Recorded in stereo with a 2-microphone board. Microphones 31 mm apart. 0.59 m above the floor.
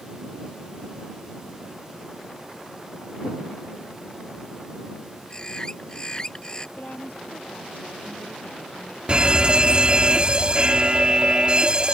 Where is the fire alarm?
35° right (ahead or behind).